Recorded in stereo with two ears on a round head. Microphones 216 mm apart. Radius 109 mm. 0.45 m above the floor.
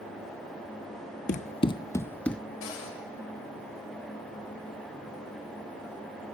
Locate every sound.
1.3 s running footsteps: 35° left (ahead or behind), 0.5 m; by 2.4 s 5° left (ahead or behind), 0.8 m
2.6 s a cupboard door: 55° left (ahead or behind), 6 m